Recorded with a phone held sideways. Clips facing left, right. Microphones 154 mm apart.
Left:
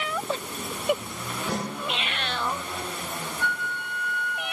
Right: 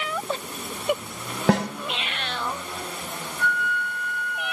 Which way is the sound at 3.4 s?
25° left (ahead or behind).